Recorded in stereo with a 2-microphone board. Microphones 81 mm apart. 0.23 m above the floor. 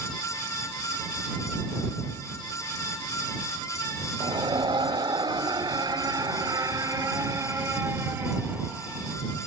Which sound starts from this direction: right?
A scream, at 4.2 s.